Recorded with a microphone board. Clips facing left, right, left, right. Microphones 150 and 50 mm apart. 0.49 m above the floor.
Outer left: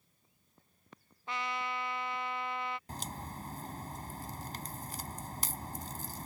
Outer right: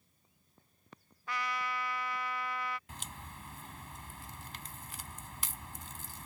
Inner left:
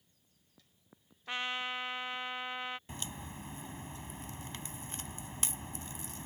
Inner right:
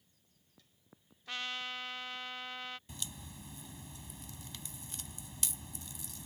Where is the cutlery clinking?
No cutlery clinking in this recording.